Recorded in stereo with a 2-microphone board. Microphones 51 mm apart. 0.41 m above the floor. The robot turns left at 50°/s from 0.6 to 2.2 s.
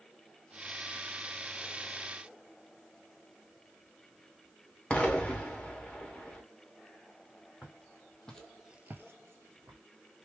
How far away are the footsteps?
About 1.8 m.